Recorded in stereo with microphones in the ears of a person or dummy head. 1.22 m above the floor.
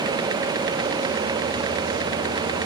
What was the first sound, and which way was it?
Only background noise.